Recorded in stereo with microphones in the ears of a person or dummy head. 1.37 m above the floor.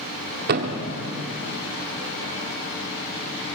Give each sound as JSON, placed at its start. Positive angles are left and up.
{"t": 0.5, "sound": "a thud", "side_deg": -50, "distance_m": 1.7}